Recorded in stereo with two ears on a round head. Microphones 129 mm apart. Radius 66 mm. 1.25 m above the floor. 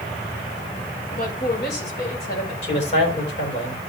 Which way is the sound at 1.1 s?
65° left (ahead or behind).